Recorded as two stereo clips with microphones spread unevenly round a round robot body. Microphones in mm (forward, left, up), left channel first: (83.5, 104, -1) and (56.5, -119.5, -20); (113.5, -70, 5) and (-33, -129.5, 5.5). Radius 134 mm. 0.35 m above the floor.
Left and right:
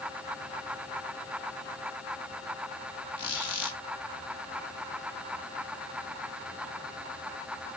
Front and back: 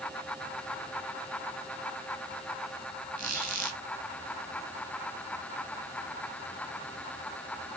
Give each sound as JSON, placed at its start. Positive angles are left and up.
{"t": 3.2, "sound": "a squeak", "azimuth_deg": 155, "distance_m": 1.3}